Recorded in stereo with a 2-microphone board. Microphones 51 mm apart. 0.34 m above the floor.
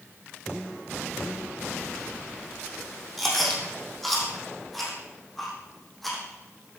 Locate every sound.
3.2 s chewing: 5° left (ahead or behind), 4 m